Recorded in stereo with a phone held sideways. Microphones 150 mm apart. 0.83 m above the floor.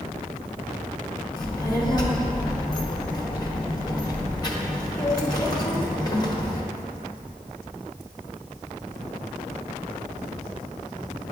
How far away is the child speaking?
About 0.8 m.